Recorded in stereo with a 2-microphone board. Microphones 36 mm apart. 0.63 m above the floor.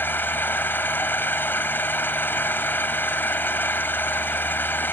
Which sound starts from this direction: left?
An engine running, at 0.0 s.